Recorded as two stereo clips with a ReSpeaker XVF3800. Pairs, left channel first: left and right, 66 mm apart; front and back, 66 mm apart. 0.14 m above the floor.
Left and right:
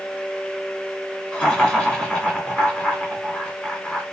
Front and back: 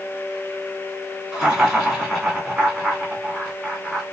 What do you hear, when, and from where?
1.3 s laughter: 115° left, 1.4 m